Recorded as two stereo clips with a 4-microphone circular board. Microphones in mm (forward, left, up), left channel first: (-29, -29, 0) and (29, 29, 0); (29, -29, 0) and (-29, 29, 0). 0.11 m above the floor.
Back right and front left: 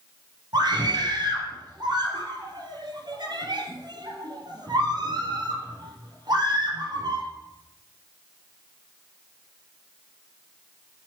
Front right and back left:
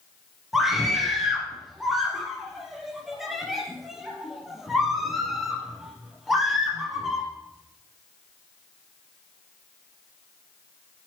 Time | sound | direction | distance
0.5 | a scream | 50° left | 3.5 m